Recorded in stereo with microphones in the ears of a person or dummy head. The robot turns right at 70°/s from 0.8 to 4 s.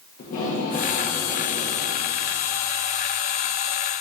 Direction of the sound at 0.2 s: 130° left.